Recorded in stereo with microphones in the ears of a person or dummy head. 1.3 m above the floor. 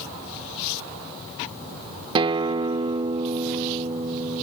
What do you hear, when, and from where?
2.1 s a guitar: 25° right (ahead or behind)